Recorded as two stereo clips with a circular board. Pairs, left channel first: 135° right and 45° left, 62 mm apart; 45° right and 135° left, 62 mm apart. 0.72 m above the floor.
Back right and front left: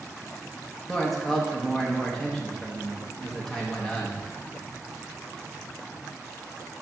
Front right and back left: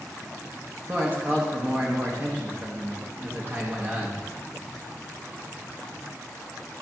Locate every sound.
0.9 s a man speaking: 145° left, 1.0 m